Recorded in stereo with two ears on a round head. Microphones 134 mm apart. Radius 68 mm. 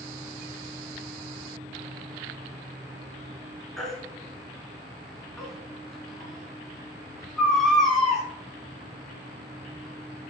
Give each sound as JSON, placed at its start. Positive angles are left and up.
{"t": 3.8, "sound": "a baby crying", "side_deg": 0, "distance_m": 2.5}